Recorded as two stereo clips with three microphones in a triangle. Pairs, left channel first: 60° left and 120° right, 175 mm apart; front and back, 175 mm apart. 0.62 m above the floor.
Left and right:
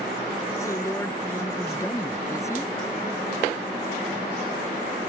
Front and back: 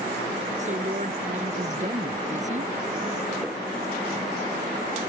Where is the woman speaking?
135° left.